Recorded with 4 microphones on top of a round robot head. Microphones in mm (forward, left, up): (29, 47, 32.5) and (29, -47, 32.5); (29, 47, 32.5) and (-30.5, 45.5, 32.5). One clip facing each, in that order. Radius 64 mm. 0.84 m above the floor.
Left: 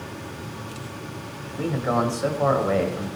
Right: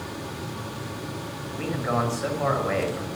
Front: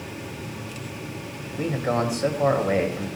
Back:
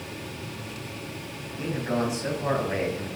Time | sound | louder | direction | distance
1.6 | a man speaking | left 3 dB, front 3 dB | 25° left | 5 m